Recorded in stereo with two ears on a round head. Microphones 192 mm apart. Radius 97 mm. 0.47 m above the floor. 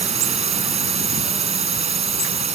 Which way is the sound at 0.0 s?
30° right (ahead or behind).